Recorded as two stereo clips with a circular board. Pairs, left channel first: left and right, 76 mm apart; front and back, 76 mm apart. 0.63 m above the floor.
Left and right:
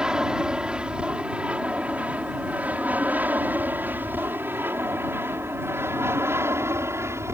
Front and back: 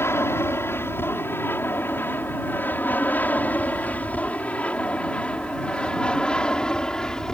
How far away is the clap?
No clap in this recording.